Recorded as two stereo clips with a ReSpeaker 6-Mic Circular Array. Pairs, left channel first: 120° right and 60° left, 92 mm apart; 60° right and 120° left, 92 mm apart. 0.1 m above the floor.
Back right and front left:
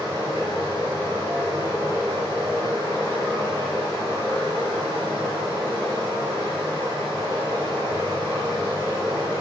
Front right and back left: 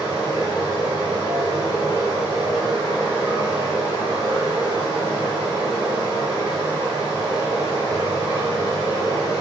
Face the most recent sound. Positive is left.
turn(degrees=-75)